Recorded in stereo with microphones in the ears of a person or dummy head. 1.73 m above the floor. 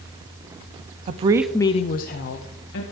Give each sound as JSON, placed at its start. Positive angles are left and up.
{"t": 1.1, "sound": "a woman speaking", "side_deg": -45, "distance_m": 0.7}